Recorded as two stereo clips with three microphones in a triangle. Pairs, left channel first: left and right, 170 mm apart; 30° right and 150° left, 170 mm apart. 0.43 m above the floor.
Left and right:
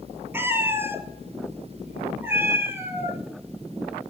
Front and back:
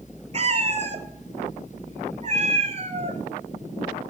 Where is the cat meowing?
165° right, 0.7 m.